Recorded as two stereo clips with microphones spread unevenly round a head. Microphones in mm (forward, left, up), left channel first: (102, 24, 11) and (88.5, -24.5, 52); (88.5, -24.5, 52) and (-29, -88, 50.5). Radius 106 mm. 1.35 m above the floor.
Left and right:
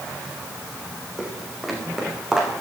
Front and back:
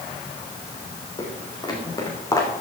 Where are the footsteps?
25° right, 5.5 m; by 2.5 s 35° right, 6 m.